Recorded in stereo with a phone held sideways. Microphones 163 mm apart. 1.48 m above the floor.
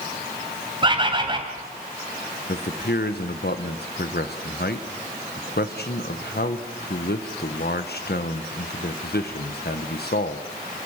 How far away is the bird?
About 2.5 m.